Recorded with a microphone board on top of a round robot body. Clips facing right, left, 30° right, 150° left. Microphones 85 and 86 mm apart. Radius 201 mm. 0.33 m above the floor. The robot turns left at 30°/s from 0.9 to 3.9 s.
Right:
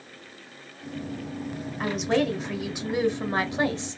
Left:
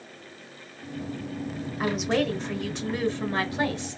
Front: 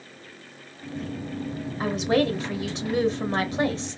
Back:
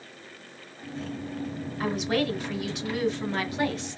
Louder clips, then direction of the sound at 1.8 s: Right 1 dB, front 4 dB; 10° left.